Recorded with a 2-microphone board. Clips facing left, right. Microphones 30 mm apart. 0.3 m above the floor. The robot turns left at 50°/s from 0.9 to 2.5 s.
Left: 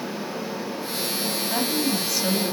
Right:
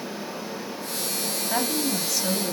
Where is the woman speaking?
160° right, 1.7 m; by 2.5 s 150° left, 1.7 m.